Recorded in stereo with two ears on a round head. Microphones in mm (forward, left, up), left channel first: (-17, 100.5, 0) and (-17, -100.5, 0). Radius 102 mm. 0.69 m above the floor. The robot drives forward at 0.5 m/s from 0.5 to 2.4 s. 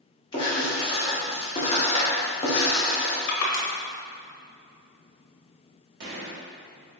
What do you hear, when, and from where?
0.3 s writing: 20° left (ahead or behind), 1.0 m; by 3.2 s 30° left (ahead or behind), 0.8 m
3.3 s crushing: 60° left (ahead or behind), 0.8 m
6.0 s a gunshot: 50° right (ahead or behind), 1.0 m